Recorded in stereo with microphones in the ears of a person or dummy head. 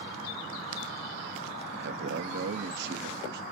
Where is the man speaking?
65° right (ahead or behind), 0.6 m.